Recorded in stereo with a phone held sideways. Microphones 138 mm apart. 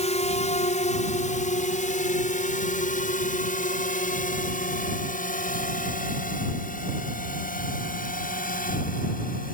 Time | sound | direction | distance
0.0 | a drone | 55° left (ahead or behind) | ?